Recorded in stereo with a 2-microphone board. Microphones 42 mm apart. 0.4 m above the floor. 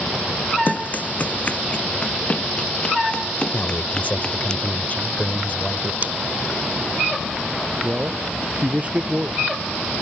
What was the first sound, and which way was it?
Running footsteps, 45° left (ahead or behind).